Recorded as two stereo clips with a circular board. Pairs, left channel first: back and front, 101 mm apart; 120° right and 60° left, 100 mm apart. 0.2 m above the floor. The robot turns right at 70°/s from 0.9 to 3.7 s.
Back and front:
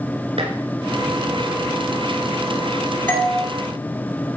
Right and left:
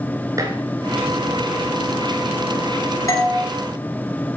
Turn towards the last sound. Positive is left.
turn(degrees=-90)